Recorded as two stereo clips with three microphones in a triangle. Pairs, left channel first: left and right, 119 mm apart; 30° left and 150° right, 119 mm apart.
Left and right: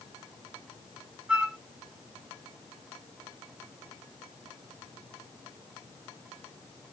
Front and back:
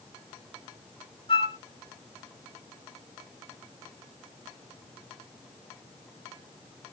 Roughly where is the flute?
Ahead.